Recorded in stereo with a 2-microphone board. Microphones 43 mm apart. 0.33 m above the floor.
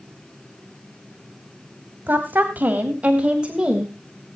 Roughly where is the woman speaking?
Right.